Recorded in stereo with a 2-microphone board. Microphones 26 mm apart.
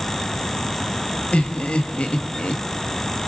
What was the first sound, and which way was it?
Laughter, 60° left (ahead or behind).